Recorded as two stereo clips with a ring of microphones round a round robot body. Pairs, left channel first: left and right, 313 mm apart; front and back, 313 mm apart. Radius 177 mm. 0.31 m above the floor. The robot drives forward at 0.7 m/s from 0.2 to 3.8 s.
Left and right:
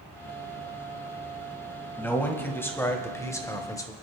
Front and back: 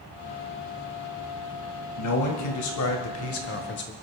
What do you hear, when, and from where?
2.0 s a man speaking: 5° left, 2.5 m; by 3.9 s 15° left, 1.4 m